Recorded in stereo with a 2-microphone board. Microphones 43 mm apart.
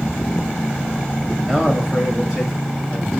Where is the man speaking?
Centre (ahead or behind), 1.1 m.